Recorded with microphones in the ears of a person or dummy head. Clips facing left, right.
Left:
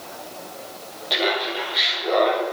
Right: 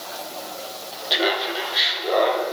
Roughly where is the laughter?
Centre.